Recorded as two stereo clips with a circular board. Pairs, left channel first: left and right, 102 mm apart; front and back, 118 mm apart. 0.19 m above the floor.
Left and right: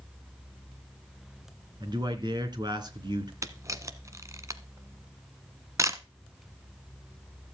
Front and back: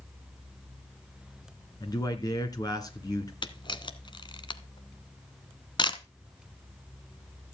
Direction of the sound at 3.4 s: 35° right.